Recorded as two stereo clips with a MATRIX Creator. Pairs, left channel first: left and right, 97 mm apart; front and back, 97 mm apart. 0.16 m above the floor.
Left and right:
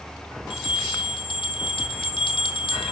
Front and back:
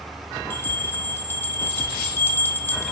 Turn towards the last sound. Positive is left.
turn(degrees=70)